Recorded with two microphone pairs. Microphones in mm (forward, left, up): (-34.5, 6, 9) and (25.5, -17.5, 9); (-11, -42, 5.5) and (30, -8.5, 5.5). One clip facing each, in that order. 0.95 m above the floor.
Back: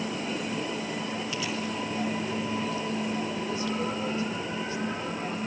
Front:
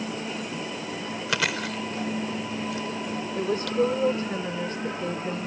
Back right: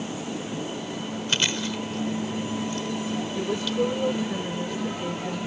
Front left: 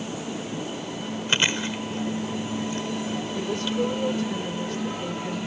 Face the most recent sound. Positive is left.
turn(degrees=-60)